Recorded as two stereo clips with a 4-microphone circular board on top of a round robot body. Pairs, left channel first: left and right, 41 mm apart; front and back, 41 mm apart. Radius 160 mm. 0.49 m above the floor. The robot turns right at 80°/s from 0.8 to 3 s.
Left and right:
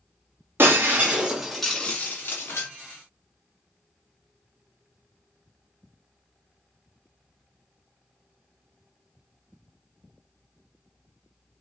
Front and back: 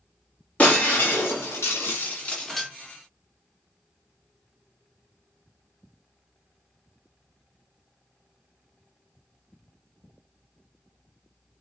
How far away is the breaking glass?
About 0.9 m.